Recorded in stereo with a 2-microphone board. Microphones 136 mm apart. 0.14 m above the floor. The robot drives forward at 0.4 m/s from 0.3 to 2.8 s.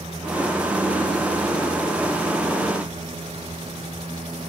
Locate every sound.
Only background noise.